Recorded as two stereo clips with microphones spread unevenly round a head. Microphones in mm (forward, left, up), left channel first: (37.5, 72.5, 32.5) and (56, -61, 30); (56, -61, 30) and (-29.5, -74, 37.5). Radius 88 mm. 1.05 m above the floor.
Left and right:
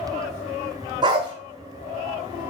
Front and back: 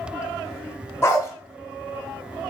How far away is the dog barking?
About 0.9 m.